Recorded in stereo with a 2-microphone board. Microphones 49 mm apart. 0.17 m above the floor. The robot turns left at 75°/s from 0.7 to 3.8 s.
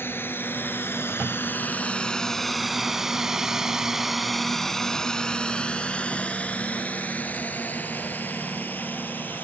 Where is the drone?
50° left (ahead or behind); by 9.4 s 45° left (ahead or behind).